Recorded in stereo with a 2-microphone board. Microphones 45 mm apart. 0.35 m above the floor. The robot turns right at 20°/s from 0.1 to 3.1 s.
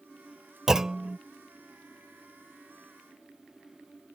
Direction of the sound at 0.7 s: 15° right (ahead or behind).